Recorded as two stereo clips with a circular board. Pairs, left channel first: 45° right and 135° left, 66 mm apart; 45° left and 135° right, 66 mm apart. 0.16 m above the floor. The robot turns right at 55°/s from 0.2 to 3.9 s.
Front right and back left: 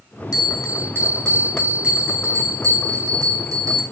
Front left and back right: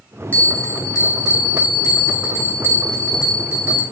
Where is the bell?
20° right, 3.5 m; by 3.8 s 175° left, 3.5 m.